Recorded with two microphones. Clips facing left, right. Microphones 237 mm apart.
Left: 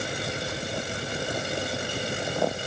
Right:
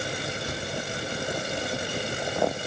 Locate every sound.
0.5 s a thud: 45° right (ahead or behind), 5 m